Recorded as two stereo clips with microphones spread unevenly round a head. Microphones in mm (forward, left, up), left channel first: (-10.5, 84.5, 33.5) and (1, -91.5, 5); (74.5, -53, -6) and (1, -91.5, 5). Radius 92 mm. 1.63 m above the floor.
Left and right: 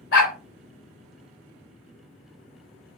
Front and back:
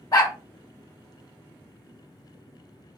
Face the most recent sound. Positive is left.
turn(degrees=90)